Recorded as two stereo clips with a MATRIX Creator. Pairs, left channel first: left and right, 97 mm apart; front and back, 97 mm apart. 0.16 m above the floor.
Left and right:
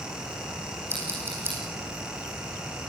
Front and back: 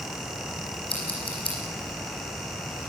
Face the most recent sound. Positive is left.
turn(degrees=-25)